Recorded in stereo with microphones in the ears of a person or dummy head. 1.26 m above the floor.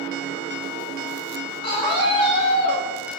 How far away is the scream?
About 3 m.